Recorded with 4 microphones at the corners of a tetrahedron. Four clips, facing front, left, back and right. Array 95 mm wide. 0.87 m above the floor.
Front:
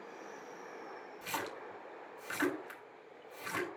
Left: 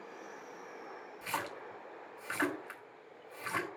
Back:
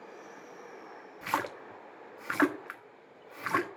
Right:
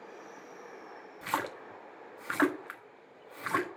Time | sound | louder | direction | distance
1.2 | a splash | right 5 dB, back 8 dB | 150° right | 1.2 m